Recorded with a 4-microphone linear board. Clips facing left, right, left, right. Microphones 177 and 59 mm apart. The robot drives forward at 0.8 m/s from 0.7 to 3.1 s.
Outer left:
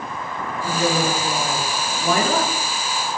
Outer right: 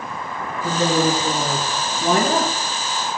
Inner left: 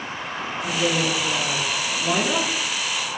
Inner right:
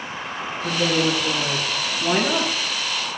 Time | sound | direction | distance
0.6 | a woman speaking | 35° right (ahead or behind) | 8 m